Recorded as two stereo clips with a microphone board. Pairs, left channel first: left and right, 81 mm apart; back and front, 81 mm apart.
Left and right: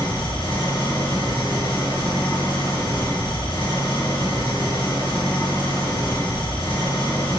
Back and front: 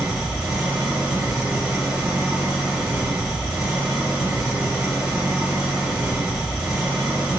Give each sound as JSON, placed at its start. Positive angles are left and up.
{"t": 0.0, "sound": "an engine running", "azimuth_deg": 75, "distance_m": 0.9}